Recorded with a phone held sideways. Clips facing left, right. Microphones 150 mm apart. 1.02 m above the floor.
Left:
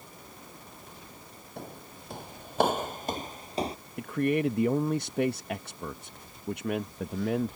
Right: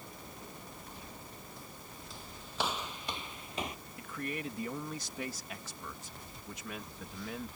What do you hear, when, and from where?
1.6 s footsteps: 60° left (ahead or behind); by 3.8 s 30° left (ahead or behind)
4.0 s a man speaking: 60° left (ahead or behind)